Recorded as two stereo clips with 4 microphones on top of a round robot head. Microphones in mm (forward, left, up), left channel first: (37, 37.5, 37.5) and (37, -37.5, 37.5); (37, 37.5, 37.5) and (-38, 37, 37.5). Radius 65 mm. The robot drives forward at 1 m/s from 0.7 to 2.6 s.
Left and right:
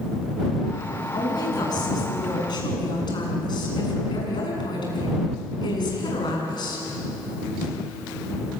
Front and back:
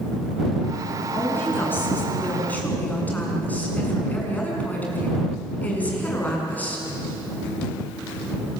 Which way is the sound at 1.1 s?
60° left.